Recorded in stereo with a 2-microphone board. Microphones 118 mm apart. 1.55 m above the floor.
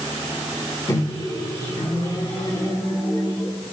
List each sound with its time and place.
0.9 s a microwave: 30° left (ahead or behind), 1.5 m